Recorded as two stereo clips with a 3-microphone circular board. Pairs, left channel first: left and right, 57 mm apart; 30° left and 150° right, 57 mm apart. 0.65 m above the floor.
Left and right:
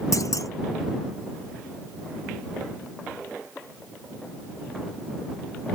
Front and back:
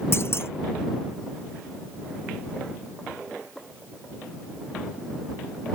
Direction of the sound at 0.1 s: 75° left.